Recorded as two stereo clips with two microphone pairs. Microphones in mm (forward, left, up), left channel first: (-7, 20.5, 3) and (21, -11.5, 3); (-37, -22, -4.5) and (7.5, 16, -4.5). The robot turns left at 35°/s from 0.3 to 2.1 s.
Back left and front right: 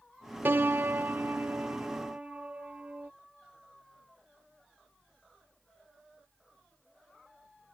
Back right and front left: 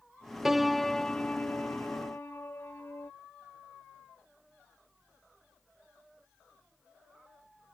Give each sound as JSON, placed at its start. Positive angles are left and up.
{"t": 0.5, "sound": "a piano", "azimuth_deg": -40}